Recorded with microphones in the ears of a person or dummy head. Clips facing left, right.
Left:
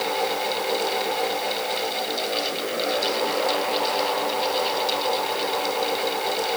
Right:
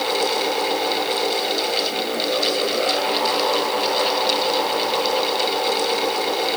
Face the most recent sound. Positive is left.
No sound to turn to.